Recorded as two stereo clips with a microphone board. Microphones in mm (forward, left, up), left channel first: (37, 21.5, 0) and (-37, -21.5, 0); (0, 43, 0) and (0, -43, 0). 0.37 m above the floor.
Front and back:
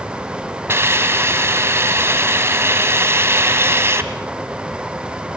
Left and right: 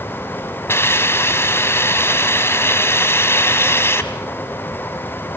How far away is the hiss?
About 1.4 m.